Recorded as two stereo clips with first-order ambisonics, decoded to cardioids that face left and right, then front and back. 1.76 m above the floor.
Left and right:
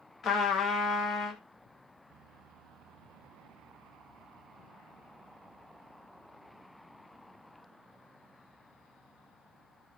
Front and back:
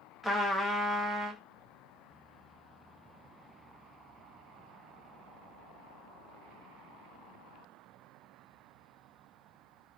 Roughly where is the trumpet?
Left.